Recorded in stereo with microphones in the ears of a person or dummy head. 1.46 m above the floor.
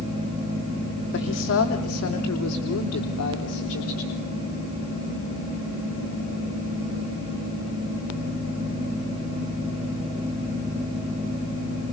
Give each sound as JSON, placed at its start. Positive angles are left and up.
{"t": 1.1, "sound": "a woman speaking", "side_deg": 65, "distance_m": 3.0}